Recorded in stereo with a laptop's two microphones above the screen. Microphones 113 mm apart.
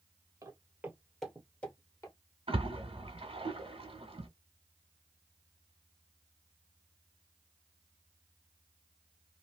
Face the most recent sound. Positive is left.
turn(degrees=-55)  # may be behind; listen again after turning